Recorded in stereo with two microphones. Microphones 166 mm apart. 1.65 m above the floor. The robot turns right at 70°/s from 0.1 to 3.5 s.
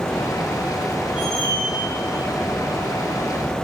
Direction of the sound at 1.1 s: 175° right.